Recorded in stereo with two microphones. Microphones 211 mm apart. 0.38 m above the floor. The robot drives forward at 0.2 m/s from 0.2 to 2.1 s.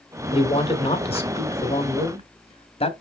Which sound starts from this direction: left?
A man speaking, at 0.3 s.